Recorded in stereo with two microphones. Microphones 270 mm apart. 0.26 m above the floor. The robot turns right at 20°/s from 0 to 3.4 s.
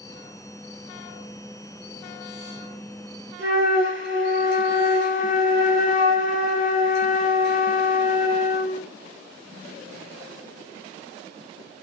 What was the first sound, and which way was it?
A flute, 45° right (ahead or behind).